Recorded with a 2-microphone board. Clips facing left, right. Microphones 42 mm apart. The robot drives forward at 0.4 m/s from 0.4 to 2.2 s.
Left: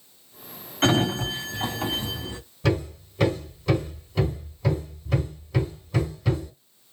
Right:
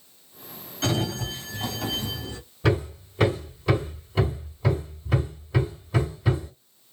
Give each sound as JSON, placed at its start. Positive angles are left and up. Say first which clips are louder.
{"t": 0.8, "sound": "a sliding door", "louder": "left 5 dB", "side_deg": 45, "distance_m": 0.8}
{"t": 2.6, "sound": "hammering", "louder": "right 1 dB", "side_deg": -15, "distance_m": 2.0}